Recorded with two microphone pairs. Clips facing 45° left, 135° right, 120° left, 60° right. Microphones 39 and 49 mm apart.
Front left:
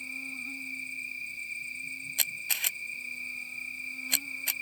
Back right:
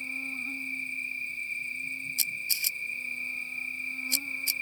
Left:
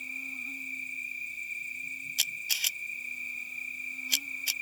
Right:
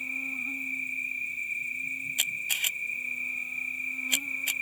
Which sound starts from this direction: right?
An insect, at 0.0 s.